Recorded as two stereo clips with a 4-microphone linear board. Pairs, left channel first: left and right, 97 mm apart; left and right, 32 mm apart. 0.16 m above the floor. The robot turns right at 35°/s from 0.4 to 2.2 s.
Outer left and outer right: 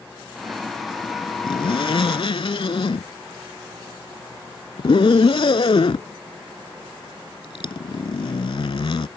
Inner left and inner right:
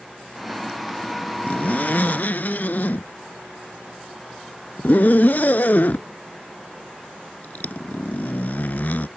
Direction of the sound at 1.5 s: 60° left (ahead or behind).